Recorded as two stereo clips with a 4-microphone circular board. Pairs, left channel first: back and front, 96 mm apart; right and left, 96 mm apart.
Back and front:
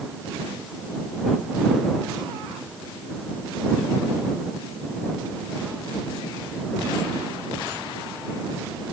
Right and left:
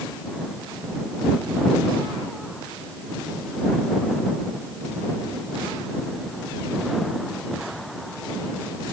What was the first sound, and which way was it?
Only background noise.